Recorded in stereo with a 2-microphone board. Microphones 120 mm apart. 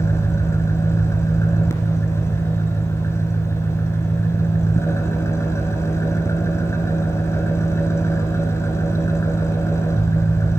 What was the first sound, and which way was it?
An engine running, 25° left (ahead or behind).